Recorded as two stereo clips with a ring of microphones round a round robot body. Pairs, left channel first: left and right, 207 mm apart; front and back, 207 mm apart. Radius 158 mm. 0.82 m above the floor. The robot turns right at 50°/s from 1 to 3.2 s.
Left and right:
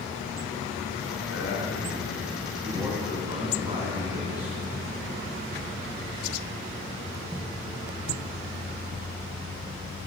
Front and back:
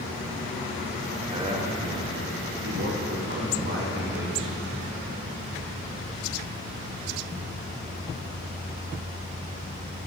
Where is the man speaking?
115° left, 3 m; by 4.8 s 150° right, 3 m.